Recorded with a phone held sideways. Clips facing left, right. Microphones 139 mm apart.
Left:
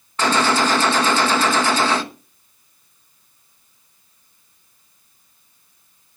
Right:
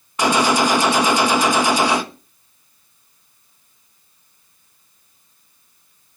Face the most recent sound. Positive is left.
turn(degrees=-15)  # may be behind; listen again after turning